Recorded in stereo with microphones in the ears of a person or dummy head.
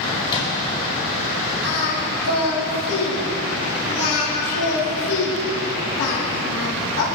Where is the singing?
85° left, 3 m.